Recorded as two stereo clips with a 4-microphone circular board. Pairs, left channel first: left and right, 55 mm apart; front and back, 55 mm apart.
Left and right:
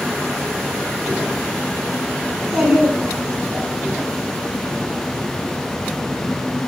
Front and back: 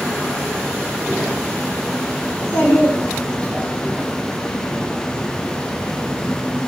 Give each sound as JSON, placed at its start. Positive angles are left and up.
{"t": 2.3, "sound": "a child speaking", "azimuth_deg": 0, "distance_m": 1.4}